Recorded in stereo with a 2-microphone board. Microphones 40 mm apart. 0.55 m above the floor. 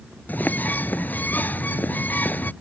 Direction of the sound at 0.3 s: 50° left (ahead or behind).